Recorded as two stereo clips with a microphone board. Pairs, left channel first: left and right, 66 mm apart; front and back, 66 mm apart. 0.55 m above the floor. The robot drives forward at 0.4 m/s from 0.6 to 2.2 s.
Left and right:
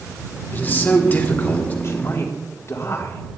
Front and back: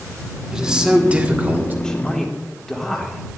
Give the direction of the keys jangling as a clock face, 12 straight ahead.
I don't hear keys jangling.